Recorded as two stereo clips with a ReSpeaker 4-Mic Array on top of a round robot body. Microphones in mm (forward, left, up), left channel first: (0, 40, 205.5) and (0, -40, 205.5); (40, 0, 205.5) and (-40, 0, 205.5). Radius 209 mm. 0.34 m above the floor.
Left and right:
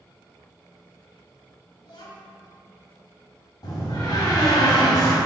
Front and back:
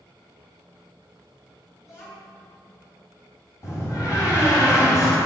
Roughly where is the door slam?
Ahead left.